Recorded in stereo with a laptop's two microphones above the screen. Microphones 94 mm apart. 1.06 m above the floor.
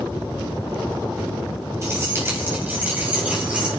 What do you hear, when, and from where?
1.8 s keys jangling: 30° right (ahead or behind), 5 m; by 3.7 s 10° right (ahead or behind), 5.5 m